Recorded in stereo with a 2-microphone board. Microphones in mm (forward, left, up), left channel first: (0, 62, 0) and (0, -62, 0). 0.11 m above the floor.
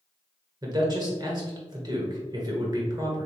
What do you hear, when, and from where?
0.6 s a man speaking: 30° right (ahead or behind), 1.6 m